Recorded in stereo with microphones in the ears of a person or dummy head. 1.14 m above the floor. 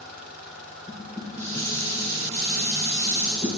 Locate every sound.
0.9 s dishes clattering: 25° left (ahead or behind), 3 m